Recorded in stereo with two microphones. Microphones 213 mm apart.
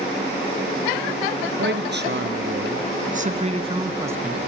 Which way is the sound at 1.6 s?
60° right (ahead or behind).